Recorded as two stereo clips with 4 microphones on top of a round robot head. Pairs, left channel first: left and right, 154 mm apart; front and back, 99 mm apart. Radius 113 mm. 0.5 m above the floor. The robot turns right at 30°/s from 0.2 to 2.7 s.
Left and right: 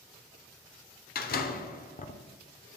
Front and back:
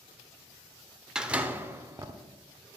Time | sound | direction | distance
1.1 | a door slam | 95° left | 1.0 m